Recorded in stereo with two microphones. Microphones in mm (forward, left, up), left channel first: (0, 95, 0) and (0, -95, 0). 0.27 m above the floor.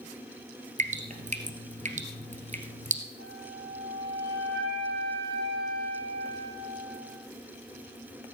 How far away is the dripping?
About 1.7 m.